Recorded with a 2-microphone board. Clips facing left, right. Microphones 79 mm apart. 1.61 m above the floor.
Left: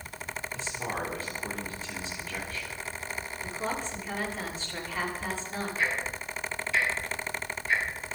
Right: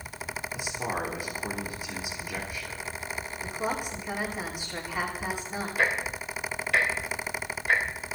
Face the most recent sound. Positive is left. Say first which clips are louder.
# right 5 dB
turn(degrees=-75)  # may be behind; listen again after turning